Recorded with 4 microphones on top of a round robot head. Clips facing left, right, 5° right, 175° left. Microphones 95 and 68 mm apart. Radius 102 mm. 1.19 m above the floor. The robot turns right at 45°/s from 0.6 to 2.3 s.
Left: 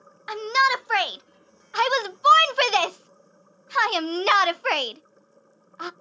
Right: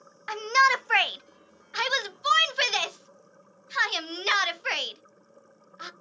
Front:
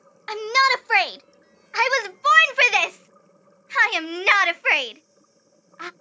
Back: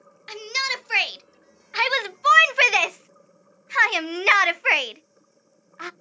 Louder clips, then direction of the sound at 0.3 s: Left 1 dB, front 10 dB; 10° left.